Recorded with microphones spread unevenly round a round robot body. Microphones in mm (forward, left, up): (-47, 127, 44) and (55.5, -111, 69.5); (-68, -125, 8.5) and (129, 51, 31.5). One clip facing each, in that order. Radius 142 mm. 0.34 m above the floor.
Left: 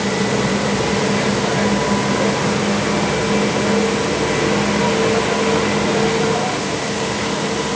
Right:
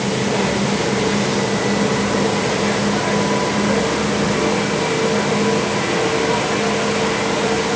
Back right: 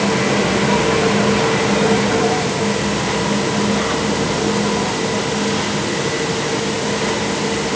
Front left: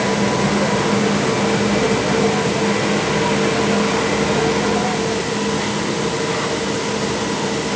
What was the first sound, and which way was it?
Only background noise.